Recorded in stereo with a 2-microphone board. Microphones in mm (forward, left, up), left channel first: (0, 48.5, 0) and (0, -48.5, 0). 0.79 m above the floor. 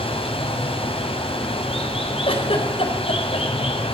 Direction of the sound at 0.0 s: 85° left.